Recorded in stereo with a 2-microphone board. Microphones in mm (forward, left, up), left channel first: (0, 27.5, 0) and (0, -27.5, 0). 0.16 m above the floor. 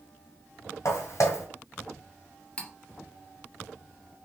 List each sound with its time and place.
0.8 s footsteps: 60° left (ahead or behind), 1.7 m
2.6 s cutlery clinking: 20° left (ahead or behind), 0.9 m